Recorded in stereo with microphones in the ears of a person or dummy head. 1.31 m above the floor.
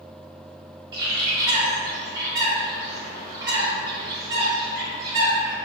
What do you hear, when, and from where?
0.9 s a bird: 25° right (ahead or behind), 1.5 m